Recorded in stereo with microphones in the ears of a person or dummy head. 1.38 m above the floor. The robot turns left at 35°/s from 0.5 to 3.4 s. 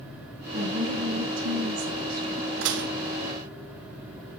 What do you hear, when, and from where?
0.5 s a woman speaking: 50° right, 5.5 m; by 2.4 s 120° right, 5.5 m
2.6 s dishes clattering: 75° right (ahead or behind), 1.0 m; by 2.9 s 70° right (ahead or behind), 1.0 m